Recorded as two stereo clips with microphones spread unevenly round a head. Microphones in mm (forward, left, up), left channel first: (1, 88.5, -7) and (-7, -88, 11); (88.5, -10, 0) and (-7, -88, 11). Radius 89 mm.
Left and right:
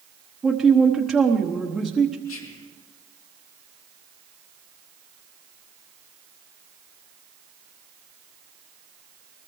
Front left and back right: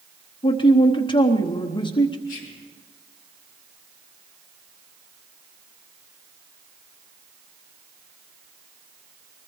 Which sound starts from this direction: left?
Whispering, at 2.3 s.